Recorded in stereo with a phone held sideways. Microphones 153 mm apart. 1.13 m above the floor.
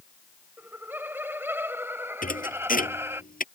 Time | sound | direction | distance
0.6 | laughter | 15° right (ahead or behind) | ?
2.2 | a thud | 65° left (ahead or behind) | ?